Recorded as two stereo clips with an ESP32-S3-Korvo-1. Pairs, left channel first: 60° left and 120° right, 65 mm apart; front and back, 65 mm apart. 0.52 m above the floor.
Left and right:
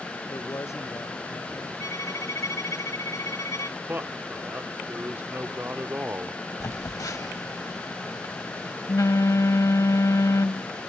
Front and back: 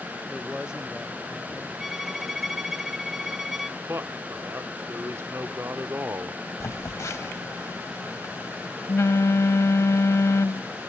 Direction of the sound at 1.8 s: 95° left.